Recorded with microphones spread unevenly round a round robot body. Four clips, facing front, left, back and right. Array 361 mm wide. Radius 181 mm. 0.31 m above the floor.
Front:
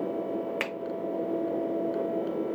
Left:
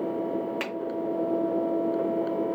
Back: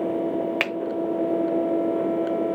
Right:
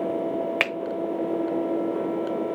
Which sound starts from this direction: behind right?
A finger snap, at 0.6 s.